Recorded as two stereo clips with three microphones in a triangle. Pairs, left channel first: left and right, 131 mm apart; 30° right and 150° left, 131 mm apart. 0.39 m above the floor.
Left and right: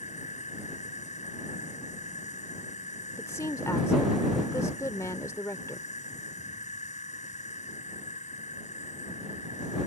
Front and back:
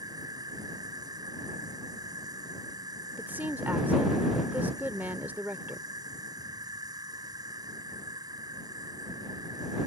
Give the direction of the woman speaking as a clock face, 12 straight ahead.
9 o'clock.